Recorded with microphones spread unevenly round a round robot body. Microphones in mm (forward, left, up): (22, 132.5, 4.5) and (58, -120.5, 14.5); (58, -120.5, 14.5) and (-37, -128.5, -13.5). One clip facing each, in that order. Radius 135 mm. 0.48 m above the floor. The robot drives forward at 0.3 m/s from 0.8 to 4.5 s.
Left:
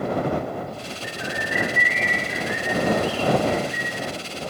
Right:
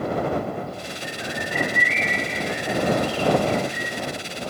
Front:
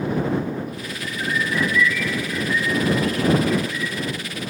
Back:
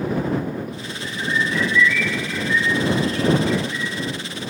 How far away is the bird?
About 0.7 m.